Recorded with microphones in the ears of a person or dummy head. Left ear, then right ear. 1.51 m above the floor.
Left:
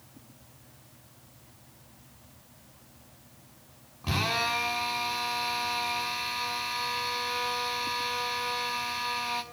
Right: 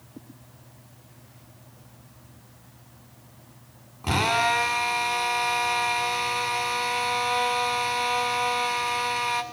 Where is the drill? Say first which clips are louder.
Right 6 dB; 20° right (ahead or behind), 6.5 m.